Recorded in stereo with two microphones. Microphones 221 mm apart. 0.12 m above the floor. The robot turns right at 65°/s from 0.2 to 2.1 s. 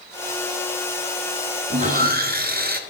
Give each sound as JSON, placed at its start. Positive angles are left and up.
{"t": 1.7, "sound": "sawing", "side_deg": -30, "distance_m": 1.0}